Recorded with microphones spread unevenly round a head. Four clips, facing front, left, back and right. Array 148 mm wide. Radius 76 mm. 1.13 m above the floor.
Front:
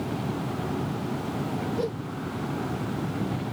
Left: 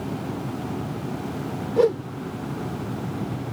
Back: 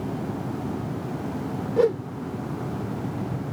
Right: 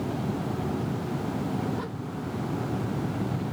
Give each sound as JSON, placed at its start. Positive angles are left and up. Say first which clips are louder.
{"t": 1.8, "sound": "a whoosh", "louder": "left 15 dB, back 9 dB", "azimuth_deg": 125}